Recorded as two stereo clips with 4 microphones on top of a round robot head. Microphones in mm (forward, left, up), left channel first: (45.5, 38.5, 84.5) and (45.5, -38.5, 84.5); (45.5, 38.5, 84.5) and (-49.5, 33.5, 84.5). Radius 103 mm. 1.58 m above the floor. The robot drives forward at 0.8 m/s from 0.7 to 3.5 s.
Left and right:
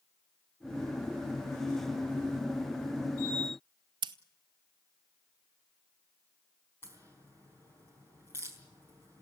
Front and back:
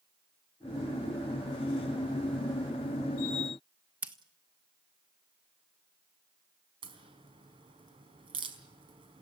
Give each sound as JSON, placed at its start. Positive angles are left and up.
{"t": 4.0, "sound": "scissors", "azimuth_deg": -100, "distance_m": 0.9}
{"t": 6.8, "sound": "a crack", "azimuth_deg": 160, "distance_m": 4.5}